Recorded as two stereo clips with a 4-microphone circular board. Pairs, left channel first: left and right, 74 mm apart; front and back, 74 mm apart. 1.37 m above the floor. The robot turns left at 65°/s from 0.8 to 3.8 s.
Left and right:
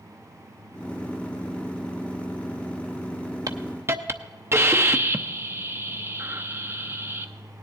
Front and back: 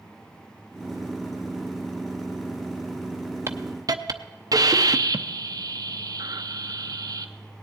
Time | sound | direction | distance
3.5 | a hiss | 125° right | 0.7 m